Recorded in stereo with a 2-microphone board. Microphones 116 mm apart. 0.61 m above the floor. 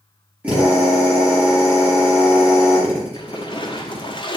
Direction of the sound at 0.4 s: 10° right (ahead or behind).